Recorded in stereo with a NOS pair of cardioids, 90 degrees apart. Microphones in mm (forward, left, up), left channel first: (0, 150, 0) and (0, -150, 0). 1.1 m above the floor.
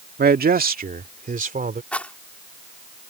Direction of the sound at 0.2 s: 35° right.